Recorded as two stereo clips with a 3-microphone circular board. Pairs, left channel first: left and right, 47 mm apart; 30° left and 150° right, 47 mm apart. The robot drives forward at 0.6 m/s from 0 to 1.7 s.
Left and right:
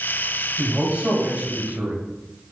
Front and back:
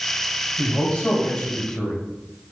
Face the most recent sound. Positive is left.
turn(degrees=-40)